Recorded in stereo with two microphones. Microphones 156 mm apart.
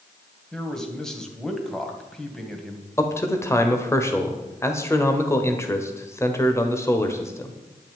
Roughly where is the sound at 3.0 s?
Centre.